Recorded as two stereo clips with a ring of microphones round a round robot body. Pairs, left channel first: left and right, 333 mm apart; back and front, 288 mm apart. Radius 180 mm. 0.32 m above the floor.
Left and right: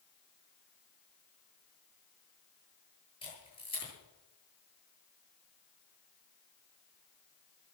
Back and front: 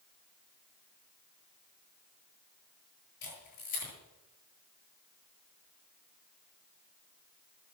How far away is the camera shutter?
About 8.5 m.